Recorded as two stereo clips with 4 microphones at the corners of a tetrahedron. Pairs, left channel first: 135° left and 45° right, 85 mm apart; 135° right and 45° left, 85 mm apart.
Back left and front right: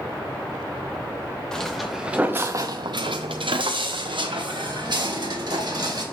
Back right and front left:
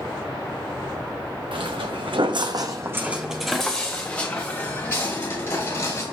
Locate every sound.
1.5 s footsteps: 55° left, 1.0 m; by 6.0 s 75° right, 2.5 m